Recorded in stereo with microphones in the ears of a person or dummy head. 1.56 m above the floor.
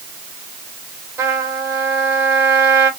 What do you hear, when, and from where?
1.2 s a trumpet: 15° right (ahead or behind), 4 m